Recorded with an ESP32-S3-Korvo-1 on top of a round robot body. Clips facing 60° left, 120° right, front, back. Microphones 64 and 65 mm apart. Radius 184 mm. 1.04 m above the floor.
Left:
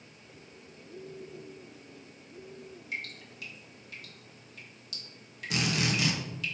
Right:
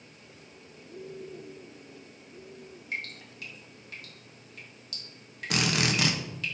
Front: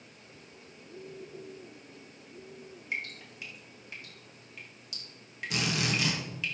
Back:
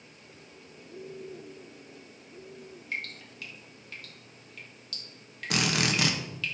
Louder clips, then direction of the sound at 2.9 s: Right 3 dB, even; 70° right.